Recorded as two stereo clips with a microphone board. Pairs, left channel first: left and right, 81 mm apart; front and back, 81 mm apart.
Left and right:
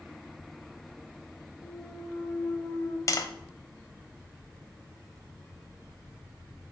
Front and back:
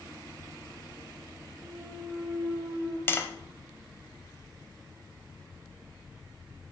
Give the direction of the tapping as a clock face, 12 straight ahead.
10 o'clock.